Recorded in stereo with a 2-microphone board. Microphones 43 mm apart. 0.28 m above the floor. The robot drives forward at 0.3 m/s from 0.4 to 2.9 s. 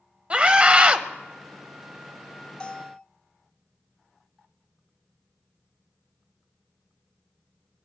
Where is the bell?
25° left (ahead or behind), 0.6 m.